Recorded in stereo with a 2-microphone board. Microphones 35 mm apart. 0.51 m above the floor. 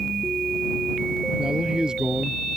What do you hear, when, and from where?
1.4 s a man speaking: 20° right (ahead or behind)